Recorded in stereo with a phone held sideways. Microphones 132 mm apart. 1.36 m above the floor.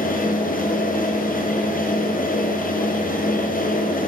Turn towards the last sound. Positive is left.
turn(degrees=85)